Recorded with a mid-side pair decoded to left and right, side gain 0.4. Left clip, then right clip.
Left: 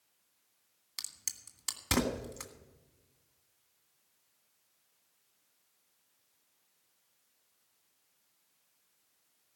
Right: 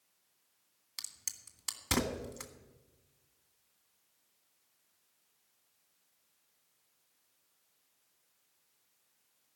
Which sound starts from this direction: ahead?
A crack, at 1.0 s.